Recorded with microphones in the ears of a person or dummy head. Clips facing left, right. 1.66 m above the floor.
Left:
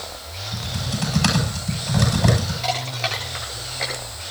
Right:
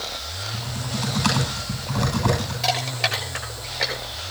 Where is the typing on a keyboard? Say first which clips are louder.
Left 1 dB; 85° left, 9.5 m.